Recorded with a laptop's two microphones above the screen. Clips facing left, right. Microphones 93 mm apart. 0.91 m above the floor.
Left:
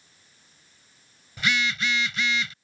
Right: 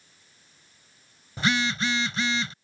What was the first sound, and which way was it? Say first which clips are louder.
A phone buzzing: right 1 dB; 35° right (ahead or behind).